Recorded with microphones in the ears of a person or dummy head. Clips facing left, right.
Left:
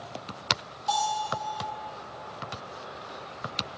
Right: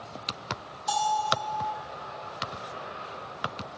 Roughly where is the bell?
Right.